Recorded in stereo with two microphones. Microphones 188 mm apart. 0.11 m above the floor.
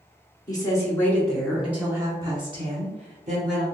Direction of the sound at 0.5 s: 20° left (ahead or behind).